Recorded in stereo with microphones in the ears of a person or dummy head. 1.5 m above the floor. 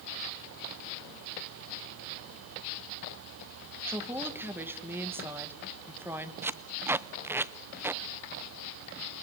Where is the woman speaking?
10° right (ahead or behind), 2 m.